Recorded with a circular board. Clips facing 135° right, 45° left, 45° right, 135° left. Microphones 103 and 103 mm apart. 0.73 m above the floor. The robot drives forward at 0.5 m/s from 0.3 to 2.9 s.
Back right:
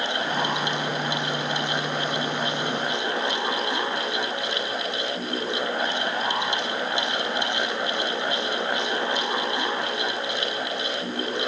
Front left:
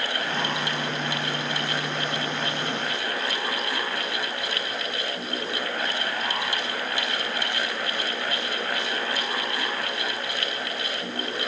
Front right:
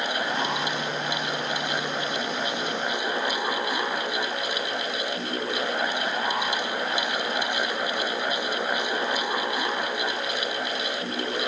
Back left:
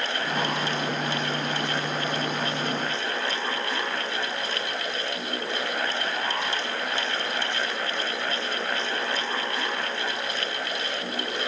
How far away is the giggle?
No giggle in this recording.